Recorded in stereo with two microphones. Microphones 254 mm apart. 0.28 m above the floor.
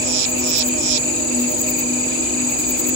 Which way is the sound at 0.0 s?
65° right (ahead or behind).